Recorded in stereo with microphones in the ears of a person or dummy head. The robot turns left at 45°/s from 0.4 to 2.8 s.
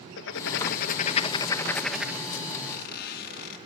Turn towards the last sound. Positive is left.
turn(degrees=60)  # may be behind; listen again after turning